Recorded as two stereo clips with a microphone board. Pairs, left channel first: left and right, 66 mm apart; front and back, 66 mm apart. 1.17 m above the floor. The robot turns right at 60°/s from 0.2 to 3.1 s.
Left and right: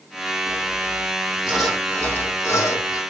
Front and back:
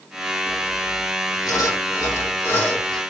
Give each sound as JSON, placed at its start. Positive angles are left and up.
{"t": 0.5, "sound": "sawing", "azimuth_deg": -70, "distance_m": 2.0}